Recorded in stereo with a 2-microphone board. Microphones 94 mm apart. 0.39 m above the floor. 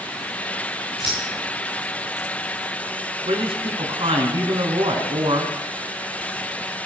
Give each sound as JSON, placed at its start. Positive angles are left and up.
{"t": 1.0, "sound": "scissors", "side_deg": 70, "distance_m": 8.0}
{"t": 3.2, "sound": "a woman speaking", "side_deg": -70, "distance_m": 4.0}